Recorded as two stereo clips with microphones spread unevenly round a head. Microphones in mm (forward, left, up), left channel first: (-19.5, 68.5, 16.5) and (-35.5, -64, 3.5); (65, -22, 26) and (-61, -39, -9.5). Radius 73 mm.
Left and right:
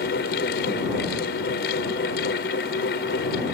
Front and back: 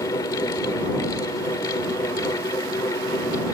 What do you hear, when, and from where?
0.0 s a fan: 75° left